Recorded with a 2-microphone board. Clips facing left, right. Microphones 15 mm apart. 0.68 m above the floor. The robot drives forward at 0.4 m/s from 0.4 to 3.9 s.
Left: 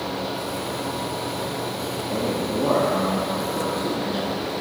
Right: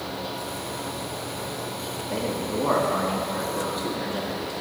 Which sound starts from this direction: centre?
A man speaking, at 2.1 s.